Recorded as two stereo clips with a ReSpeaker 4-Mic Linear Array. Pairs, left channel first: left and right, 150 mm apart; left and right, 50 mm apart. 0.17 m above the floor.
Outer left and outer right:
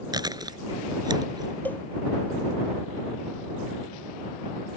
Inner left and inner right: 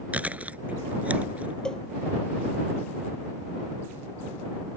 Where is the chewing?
25° right (ahead or behind).